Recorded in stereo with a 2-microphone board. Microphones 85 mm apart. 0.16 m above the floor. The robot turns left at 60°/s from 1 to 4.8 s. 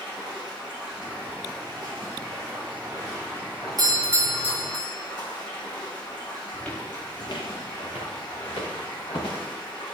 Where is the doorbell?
120° right, 3 m; by 4.9 s straight behind, 3 m.